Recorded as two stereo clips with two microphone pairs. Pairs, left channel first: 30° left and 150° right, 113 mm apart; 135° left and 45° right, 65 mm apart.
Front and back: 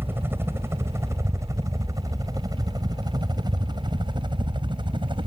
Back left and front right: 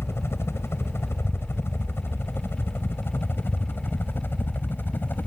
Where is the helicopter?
145° left; by 5.3 s 175° right.